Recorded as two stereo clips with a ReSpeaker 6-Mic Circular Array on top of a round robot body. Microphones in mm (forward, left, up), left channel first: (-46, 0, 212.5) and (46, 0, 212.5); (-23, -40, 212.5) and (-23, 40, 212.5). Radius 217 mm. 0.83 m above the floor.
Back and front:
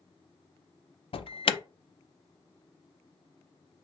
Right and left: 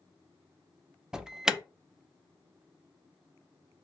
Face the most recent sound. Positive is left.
turn(degrees=170)